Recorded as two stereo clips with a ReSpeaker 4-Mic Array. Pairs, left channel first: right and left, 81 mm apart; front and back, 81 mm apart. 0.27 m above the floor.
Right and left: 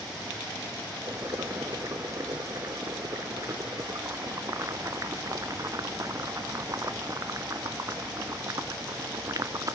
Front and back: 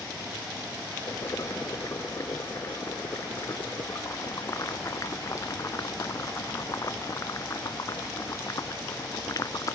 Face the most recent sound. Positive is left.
turn(degrees=45)